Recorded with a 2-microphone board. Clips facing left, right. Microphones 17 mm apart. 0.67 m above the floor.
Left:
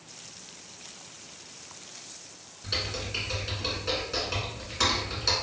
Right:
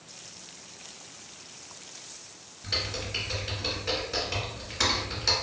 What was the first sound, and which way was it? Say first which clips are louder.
Typing on a keyboard: right 1 dB; centre (ahead or behind).